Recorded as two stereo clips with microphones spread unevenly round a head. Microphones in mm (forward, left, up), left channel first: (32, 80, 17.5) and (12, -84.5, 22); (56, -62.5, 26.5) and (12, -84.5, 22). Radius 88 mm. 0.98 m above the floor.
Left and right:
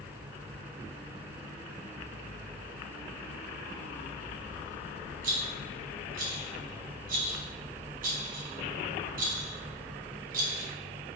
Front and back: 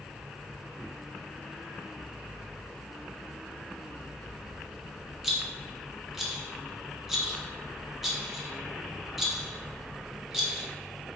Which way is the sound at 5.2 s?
65° right.